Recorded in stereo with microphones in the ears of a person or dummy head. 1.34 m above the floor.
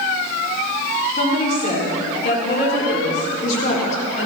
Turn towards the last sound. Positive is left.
turn(degrees=40)  # may be behind; listen again after turning